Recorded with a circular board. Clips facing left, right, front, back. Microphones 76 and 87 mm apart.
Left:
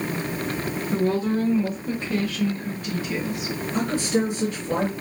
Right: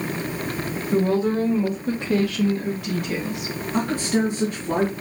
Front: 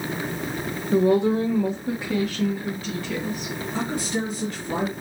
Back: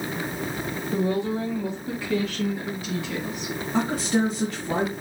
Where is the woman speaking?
5° right, 1.0 m; by 3.5 s 115° right, 1.6 m.